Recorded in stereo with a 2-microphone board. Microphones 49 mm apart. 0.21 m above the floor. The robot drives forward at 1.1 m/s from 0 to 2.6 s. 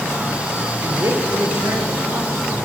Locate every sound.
0.8 s a man speaking: 75° right (ahead or behind), 5 m; by 2.5 s 65° right (ahead or behind), 5 m